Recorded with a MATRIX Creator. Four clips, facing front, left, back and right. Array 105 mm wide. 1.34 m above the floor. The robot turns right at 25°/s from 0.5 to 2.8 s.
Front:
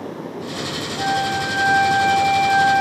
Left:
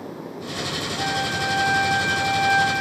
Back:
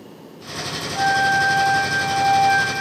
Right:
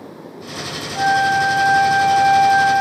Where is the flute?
130° right, 3 m; by 2.8 s 85° right, 3 m.